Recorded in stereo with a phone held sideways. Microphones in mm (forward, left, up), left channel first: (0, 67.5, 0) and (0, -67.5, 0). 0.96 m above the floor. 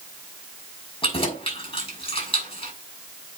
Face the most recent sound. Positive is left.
turn(degrees=45)  # may be behind; listen again after turning